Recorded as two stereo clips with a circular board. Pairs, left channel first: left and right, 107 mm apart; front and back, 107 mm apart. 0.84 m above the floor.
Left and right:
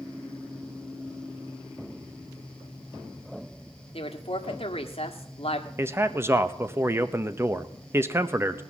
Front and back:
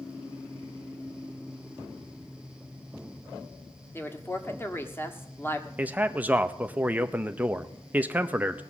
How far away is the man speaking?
About 0.7 m.